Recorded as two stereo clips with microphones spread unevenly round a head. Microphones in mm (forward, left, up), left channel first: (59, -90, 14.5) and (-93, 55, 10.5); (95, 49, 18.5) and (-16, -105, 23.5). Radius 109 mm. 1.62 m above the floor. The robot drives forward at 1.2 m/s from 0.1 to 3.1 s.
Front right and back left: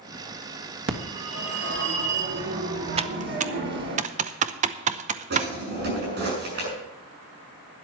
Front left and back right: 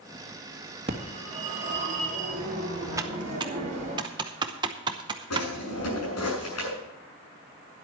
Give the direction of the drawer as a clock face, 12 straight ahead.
9 o'clock.